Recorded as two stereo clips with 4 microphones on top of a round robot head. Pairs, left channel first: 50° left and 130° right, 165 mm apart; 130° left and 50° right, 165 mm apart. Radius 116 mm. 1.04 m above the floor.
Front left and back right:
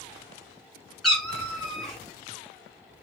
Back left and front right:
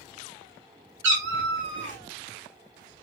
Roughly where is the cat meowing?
Ahead right.